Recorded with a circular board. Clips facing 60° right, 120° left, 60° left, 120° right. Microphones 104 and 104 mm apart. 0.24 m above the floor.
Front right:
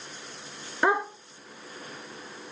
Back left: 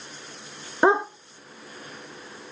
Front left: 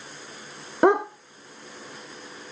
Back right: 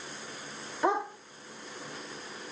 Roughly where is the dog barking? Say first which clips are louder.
Back left 5 dB, front left 9 dB; ahead left.